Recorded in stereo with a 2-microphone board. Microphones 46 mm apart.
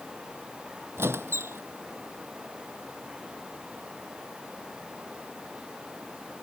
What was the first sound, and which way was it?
A squeak, 65° right (ahead or behind).